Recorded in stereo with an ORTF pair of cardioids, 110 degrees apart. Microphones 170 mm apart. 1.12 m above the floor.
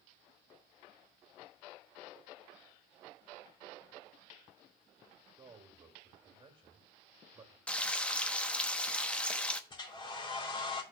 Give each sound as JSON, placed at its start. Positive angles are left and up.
{"t": 5.4, "sound": "a man speaking", "azimuth_deg": -30, "distance_m": 2.5}
{"t": 7.7, "sound": "frying", "azimuth_deg": 10, "distance_m": 0.9}
{"t": 9.7, "sound": "a hair dryer", "azimuth_deg": 30, "distance_m": 3.0}